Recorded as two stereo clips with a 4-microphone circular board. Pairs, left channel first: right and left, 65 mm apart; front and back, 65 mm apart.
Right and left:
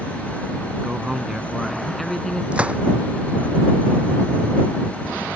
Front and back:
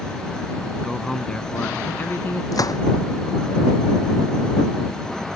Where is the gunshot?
20° left.